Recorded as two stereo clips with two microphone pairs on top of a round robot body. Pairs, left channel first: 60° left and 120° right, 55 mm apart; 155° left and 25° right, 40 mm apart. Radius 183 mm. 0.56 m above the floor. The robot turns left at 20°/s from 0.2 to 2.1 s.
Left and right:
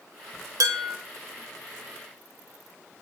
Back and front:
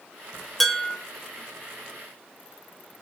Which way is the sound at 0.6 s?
120° right.